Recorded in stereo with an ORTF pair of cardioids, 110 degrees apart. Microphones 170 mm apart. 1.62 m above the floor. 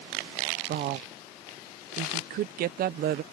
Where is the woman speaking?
60° right.